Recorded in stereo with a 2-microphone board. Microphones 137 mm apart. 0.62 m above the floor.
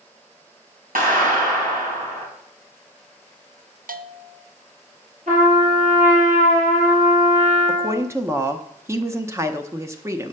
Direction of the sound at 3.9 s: 80° right.